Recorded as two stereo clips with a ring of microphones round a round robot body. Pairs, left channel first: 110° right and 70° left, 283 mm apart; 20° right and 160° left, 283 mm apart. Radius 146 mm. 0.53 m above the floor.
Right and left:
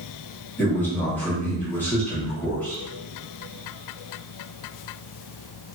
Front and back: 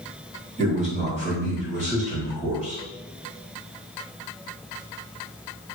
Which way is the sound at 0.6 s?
175° left.